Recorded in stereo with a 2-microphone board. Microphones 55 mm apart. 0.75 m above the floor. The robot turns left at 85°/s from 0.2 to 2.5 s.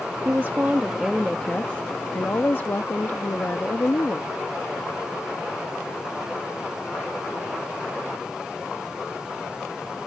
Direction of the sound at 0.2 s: 95° right.